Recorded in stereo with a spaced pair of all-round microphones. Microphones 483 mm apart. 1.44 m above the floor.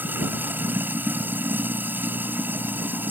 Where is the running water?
5° right (ahead or behind).